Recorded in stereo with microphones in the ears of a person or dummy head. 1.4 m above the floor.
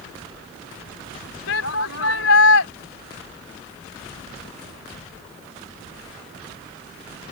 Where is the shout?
75° left (ahead or behind).